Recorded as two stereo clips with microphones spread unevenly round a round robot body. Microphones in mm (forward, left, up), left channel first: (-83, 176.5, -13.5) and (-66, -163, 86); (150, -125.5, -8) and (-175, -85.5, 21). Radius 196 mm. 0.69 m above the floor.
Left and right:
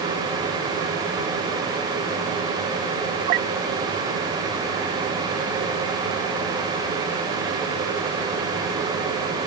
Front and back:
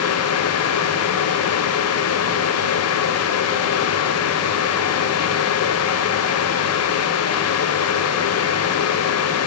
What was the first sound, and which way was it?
Only background noise.